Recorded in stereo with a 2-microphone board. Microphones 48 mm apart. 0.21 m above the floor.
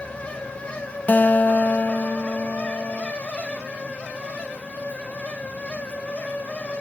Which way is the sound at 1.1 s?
40° left (ahead or behind).